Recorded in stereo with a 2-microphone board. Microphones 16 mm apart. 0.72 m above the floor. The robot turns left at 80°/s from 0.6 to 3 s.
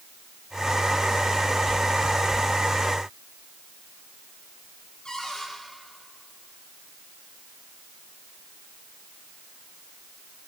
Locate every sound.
5.0 s a cupboard door: 65° left (ahead or behind), 7 m